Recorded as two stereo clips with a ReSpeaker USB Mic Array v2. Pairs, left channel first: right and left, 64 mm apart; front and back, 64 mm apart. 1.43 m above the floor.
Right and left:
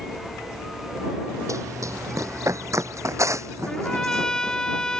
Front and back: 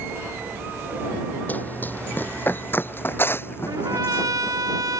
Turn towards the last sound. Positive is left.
turn(degrees=-170)